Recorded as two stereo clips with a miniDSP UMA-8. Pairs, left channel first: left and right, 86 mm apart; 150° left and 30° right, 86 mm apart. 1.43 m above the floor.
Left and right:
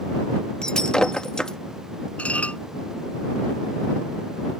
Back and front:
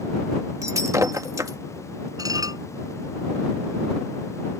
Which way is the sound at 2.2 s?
15° left.